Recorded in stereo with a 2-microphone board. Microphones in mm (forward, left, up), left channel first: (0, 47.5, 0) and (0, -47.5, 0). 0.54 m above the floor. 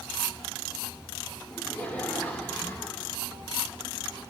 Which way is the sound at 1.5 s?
15° left (ahead or behind).